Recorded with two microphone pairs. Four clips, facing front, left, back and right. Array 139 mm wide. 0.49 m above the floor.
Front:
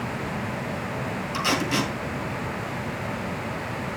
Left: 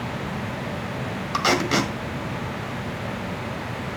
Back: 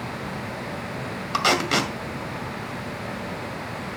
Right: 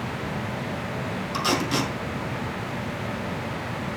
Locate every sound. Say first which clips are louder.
1.3 s tape being pulled: left 4 dB, back 4 dB; 145° left, 1.9 m